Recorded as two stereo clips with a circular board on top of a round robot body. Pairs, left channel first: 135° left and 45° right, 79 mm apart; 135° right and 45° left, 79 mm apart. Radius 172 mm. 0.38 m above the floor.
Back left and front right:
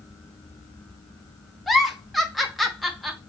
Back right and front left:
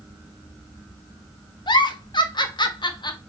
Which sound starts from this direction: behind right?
A giggle, at 1.7 s.